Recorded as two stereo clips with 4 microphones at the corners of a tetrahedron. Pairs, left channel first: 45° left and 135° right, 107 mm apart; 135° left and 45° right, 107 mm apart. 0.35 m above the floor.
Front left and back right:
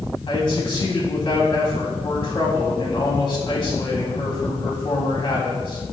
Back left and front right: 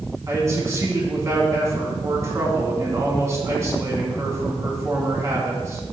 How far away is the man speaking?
About 2.5 m.